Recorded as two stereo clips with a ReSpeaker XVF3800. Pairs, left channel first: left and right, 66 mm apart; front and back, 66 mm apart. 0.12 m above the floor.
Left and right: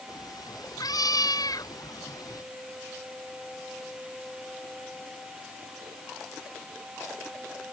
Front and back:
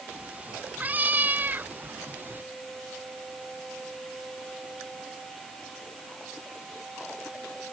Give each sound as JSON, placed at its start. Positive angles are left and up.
{"t": 0.1, "sound": "a cat meowing", "azimuth_deg": 110}